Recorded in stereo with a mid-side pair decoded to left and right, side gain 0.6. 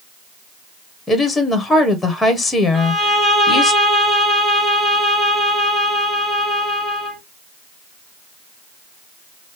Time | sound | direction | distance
1.1 | a woman speaking | 15° left | 1.6 m
2.7 | a violin | 20° right | 4 m